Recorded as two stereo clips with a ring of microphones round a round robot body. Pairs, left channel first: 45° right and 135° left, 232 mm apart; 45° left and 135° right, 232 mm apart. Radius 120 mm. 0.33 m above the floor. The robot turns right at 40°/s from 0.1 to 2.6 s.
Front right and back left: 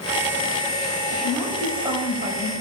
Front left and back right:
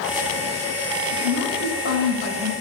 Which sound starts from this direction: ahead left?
A woman speaking, at 1.1 s.